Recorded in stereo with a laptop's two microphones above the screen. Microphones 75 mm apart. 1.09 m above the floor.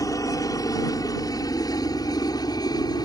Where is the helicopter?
50° left (ahead or behind); by 3.1 s 60° left (ahead or behind).